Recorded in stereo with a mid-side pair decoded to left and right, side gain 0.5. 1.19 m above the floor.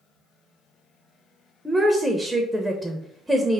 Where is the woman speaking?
10° right, 0.6 m.